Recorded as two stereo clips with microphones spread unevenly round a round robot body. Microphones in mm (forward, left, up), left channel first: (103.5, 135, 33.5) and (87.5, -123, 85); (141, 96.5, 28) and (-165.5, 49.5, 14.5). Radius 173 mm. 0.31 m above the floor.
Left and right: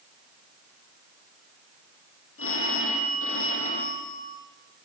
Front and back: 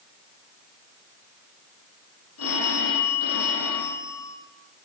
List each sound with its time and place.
2.4 s a phone ringing: 50° left, 9.5 m